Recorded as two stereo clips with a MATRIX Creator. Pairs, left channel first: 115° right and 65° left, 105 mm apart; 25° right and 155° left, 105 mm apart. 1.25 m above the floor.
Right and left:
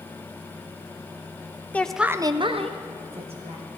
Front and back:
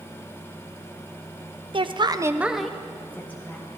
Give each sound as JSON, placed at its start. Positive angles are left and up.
{"t": 1.7, "sound": "a woman speaking", "azimuth_deg": 175, "distance_m": 0.6}